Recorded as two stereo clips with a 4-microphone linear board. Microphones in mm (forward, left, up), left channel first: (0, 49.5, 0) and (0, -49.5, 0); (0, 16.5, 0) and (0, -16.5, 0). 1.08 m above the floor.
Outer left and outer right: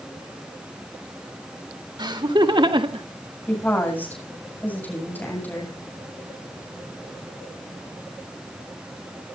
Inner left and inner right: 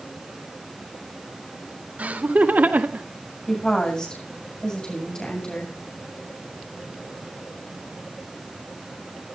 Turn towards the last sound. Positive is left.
turn(degrees=20)  # may be behind; listen again after turning